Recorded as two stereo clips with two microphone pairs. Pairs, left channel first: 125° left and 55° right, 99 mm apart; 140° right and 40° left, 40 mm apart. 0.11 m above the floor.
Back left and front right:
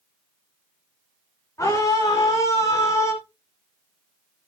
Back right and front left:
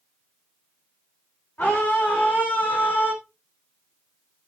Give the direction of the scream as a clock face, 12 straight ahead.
6 o'clock.